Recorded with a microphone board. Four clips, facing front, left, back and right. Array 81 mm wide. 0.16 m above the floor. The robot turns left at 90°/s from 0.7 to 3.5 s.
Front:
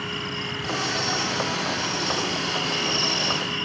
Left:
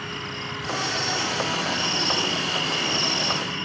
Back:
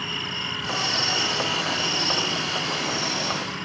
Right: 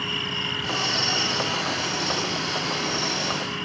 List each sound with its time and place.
0.0 s an insect: 100° right; by 3.7 s 5° left